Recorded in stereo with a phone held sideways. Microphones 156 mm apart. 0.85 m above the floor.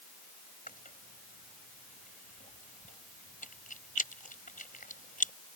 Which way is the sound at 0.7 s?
60° left (ahead or behind).